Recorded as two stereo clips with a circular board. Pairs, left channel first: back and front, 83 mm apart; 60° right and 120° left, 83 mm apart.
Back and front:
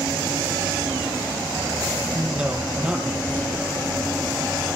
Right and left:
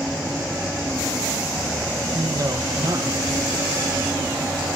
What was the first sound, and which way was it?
A man speaking, 80° left.